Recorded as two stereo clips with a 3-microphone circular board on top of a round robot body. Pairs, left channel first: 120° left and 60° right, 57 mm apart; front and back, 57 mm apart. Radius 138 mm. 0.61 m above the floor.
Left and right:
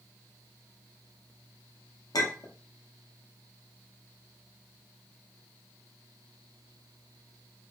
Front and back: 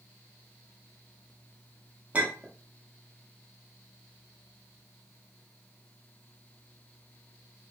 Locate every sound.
2.1 s a clink: 115° left, 0.7 m